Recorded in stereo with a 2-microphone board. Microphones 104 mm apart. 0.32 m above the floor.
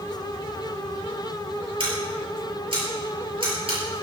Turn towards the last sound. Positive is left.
turn(degrees=-60)  # may be behind; listen again after turning